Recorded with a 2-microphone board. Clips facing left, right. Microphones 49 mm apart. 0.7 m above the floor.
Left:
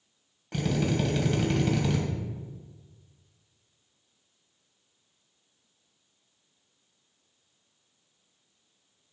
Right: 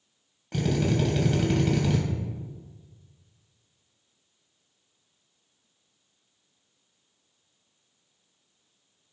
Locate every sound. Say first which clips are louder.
0.5 s a drill: right 2 dB; centre (ahead or behind), 3 m